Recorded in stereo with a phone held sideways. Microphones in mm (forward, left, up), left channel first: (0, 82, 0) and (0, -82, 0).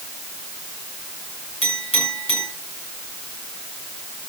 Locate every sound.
1.6 s a clink: 35° left (ahead or behind), 9 m